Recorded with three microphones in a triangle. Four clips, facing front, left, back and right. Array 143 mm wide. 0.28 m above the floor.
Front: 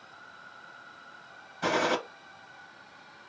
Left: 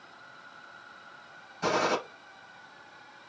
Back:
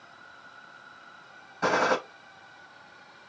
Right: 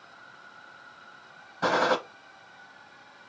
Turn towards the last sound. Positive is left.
turn(degrees=-125)